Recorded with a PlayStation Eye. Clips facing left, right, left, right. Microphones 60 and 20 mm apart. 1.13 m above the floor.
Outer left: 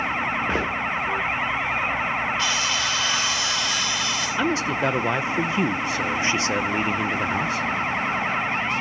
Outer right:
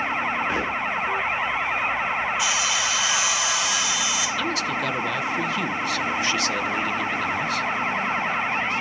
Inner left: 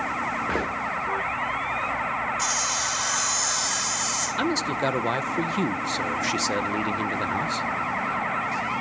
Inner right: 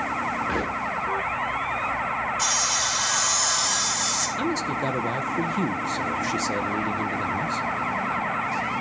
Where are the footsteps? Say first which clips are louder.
Outer left 1 dB, even; 40° left (ahead or behind), 5 m.